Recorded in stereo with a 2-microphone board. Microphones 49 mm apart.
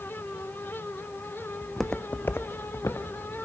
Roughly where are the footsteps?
Centre.